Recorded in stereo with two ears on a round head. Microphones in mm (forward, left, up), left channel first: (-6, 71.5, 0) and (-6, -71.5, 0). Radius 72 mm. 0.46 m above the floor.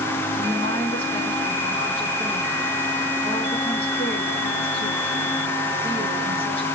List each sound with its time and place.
0.4 s a woman speaking: 35° left (ahead or behind), 4 m